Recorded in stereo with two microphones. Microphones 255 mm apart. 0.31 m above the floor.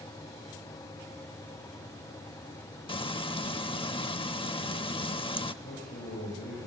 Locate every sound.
2.9 s frying: 20° left (ahead or behind), 0.6 m
5.6 s a man speaking: 45° left (ahead or behind), 7.5 m